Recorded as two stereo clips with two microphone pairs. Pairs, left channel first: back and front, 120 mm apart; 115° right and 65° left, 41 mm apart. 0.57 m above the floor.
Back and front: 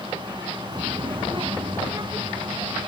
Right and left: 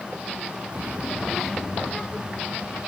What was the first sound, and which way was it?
A child speaking, 45° left.